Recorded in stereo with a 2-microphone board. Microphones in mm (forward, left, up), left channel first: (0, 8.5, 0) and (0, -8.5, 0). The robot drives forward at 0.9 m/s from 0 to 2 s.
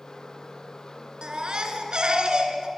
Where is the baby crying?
55° right (ahead or behind), 2 m.